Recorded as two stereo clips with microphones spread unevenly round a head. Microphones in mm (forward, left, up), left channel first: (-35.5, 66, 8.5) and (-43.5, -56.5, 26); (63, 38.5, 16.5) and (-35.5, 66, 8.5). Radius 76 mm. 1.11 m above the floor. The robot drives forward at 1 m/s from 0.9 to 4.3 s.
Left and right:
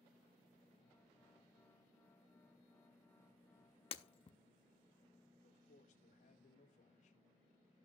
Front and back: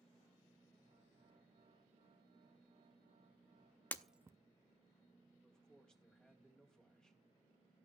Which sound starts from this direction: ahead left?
Breaking glass, at 3.9 s.